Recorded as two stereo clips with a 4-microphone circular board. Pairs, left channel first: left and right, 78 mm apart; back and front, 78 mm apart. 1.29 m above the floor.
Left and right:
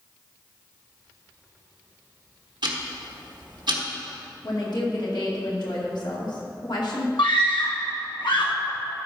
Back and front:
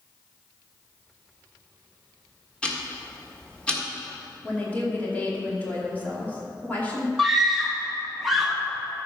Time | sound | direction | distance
2.6 | ticking | 105° right | 1.5 m
4.4 | a woman speaking | 110° left | 2.5 m
7.2 | a scream | 90° left | 1.8 m